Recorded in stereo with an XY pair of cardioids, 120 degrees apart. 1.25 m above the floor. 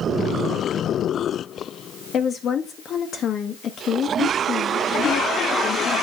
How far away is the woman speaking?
About 1.2 m.